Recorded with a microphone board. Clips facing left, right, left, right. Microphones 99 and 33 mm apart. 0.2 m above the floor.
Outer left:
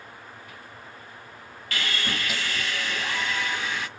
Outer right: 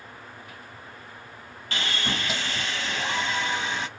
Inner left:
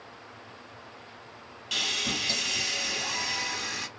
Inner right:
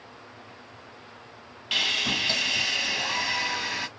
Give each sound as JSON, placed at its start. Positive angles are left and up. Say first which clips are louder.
{"t": 1.7, "sound": "sawing", "louder": "even, inner right 4 dB", "side_deg": -25, "distance_m": 0.9}